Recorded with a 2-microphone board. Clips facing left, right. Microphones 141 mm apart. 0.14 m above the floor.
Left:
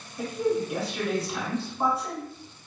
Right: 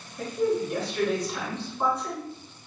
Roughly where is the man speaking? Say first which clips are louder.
Right 1 dB; centre.